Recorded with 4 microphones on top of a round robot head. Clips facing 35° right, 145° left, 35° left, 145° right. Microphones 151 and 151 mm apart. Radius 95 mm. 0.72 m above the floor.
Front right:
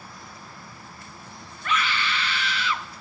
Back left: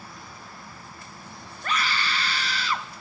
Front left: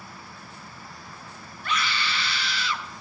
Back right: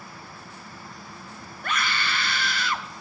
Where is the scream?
170° right, 0.8 m.